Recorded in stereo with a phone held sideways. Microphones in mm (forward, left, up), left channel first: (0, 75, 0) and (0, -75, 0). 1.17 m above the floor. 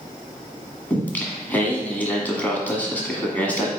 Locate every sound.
0.9 s singing: 10° left (ahead or behind), 1.6 m